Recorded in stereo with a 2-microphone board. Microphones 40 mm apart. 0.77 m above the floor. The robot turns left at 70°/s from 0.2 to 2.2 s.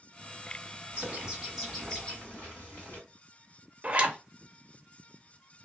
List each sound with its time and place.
0.9 s a bird: 130° right, 2 m; by 3.0 s 140° left, 2 m
3.8 s a zipper: 35° right (ahead or behind), 0.6 m